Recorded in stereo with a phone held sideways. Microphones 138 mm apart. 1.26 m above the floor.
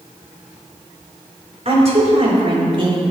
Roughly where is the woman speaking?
Right.